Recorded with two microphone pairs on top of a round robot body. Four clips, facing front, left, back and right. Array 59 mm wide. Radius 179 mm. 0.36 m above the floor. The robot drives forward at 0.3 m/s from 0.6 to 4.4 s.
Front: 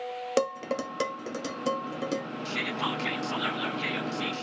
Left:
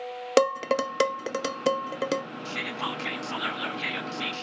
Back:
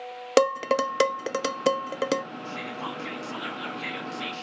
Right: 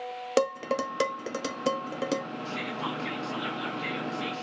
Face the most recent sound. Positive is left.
turn(degrees=100)